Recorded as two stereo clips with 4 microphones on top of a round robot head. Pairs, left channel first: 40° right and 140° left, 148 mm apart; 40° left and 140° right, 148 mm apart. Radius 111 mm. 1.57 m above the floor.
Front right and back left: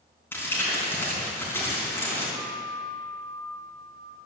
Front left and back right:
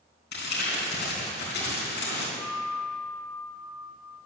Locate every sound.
0.3 s crumpling: 35° left, 3.5 m
2.3 s a guitar: 165° right, 2 m